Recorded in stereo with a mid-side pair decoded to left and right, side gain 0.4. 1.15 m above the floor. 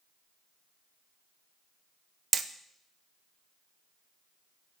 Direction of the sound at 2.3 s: 40° right.